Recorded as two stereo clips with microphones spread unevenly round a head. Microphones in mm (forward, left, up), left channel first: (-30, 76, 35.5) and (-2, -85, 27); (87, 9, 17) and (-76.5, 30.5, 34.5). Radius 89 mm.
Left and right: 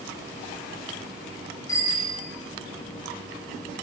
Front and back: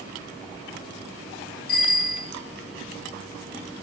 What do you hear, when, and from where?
1.7 s a bicycle bell: 30° left, 4.5 m